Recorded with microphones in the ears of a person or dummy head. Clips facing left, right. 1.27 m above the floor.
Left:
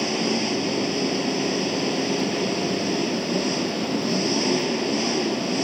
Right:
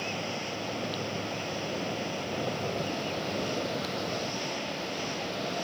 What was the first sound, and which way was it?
An engine running, 80° left.